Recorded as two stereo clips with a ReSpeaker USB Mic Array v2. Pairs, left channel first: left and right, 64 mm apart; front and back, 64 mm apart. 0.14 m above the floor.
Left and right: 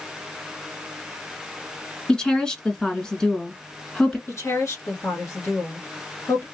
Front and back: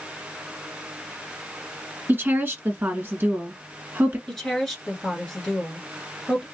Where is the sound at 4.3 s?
80° left, 1.5 m.